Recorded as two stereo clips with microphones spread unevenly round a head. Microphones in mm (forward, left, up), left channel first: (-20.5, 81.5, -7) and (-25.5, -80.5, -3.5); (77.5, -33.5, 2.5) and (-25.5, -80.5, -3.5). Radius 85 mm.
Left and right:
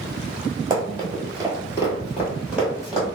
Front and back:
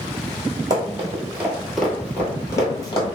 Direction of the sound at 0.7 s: 125° right.